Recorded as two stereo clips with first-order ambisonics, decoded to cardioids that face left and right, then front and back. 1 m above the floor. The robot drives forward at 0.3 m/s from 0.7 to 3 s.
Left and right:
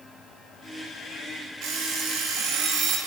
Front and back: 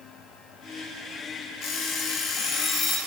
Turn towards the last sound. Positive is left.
turn(degrees=-60)